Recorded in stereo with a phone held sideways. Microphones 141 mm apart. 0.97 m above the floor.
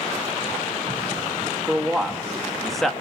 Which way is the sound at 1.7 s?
Centre (ahead or behind).